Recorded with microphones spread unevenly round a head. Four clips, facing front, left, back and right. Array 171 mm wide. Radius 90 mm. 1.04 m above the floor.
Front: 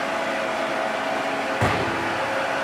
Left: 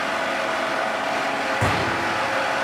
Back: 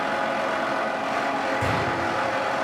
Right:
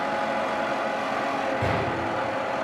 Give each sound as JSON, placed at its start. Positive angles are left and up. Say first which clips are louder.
{"t": 1.6, "sound": "a gunshot", "louder": "left 3 dB, front 2 dB", "azimuth_deg": 35, "distance_m": 1.1}